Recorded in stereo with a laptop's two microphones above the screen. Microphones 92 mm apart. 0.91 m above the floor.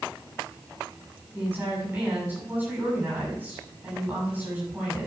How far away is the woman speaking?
About 7.5 m.